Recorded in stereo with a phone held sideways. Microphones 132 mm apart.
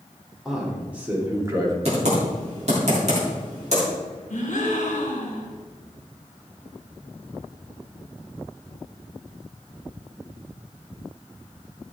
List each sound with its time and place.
0.5 s a man speaking: centre (ahead or behind), 3 m; by 1.8 s 30° right (ahead or behind), 2 m
1.9 s typing on a keyboard: 55° right (ahead or behind), 3 m
4.3 s a gasp: 70° left (ahead or behind), 2.5 m